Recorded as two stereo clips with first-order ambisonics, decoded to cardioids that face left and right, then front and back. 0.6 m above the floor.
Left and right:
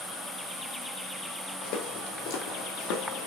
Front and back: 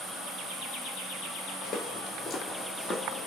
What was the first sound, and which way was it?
Footsteps, 70° left.